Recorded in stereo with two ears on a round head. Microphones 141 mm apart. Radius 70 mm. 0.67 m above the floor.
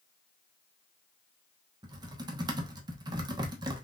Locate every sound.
1.8 s typing on a keyboard: 25° right (ahead or behind), 0.9 m